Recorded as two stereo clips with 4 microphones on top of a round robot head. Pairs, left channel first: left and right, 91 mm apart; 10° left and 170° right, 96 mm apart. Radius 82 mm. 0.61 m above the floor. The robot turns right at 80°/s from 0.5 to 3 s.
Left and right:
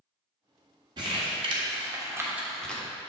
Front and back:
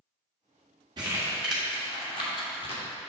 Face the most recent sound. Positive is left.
turn(degrees=35)